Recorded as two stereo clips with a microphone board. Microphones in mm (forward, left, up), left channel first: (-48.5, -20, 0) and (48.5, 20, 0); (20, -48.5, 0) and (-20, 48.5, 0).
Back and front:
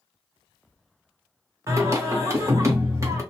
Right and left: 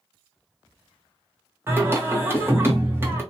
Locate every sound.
1.7 s singing: 60° left, 0.8 m